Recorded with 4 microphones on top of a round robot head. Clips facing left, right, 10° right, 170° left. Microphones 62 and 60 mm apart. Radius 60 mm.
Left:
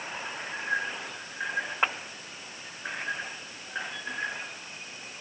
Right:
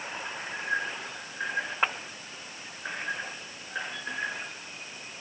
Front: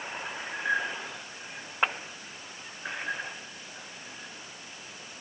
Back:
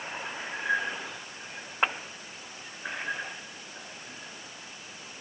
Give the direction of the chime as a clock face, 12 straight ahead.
No chime in this recording.